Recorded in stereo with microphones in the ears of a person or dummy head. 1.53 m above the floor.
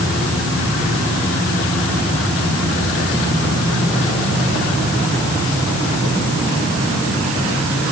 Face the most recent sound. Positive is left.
No sound to turn to.